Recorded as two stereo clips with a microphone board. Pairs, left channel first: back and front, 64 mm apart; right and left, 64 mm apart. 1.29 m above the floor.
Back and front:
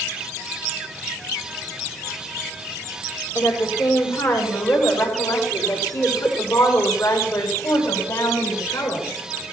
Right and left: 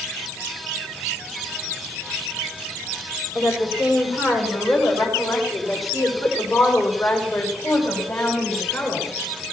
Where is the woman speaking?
160° left, 6 m; by 9.1 s 145° right, 6.5 m.